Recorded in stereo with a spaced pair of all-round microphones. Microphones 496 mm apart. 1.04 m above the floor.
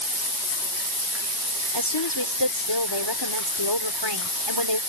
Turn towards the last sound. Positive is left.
turn(degrees=55)  # may be behind; listen again after turning